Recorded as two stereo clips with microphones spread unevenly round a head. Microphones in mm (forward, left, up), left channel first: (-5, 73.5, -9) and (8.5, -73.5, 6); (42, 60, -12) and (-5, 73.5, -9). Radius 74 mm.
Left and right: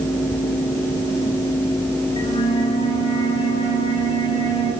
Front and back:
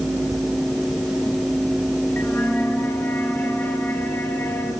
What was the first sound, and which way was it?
A flute, 35° left.